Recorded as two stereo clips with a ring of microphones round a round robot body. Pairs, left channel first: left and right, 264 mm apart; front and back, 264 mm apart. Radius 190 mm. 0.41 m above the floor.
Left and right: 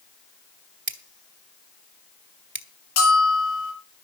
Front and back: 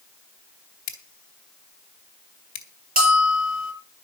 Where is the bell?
120° left, 7 m.